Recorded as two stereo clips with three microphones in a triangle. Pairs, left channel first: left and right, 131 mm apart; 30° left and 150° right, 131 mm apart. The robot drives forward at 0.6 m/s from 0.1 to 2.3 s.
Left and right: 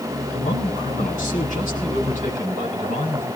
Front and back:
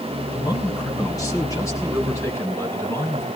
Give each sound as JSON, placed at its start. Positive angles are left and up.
{"t": 0.3, "sound": "a man speaking", "azimuth_deg": 85, "distance_m": 5.5}